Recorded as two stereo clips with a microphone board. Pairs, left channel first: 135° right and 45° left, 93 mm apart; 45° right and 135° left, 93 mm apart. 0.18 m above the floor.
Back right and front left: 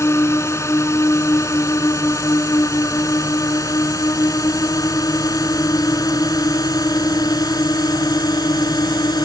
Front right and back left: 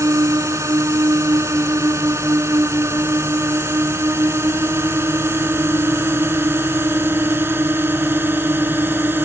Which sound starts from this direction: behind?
A drone, at 0.0 s.